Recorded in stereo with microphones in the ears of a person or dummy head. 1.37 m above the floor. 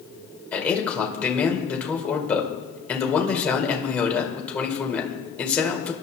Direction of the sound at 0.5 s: 10° left (ahead or behind).